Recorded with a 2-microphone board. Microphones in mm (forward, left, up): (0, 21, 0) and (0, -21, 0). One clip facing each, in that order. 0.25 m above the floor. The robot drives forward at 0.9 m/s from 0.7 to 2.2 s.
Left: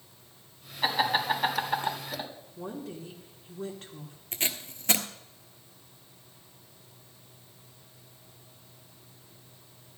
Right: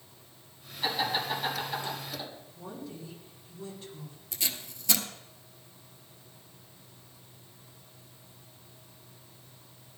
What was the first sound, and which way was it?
Laughter, 40° left (ahead or behind).